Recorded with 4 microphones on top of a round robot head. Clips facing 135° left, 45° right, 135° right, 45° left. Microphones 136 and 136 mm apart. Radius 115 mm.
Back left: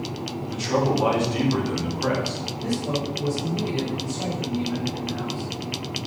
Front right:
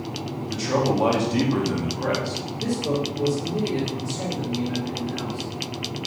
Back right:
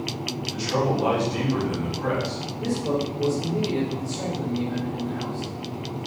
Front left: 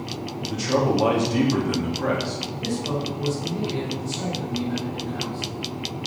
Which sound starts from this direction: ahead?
A man speaking, at 0.5 s.